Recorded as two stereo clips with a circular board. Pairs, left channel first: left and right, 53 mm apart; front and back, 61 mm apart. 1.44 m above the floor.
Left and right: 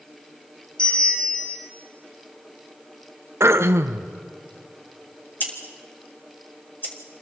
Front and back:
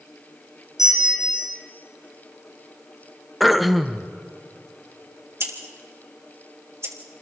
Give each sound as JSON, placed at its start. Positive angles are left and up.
{"t": 0.8, "sound": "a bell", "azimuth_deg": 20, "distance_m": 5.5}
{"t": 3.4, "sound": "throat clearing", "azimuth_deg": -90, "distance_m": 0.7}
{"t": 5.4, "sound": "scissors", "azimuth_deg": 140, "distance_m": 3.0}